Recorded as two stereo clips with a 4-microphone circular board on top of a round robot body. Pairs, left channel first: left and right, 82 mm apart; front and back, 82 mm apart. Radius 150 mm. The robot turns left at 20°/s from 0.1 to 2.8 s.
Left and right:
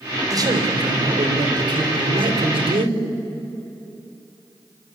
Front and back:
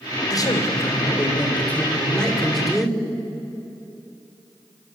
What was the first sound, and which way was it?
A man speaking, 45° right.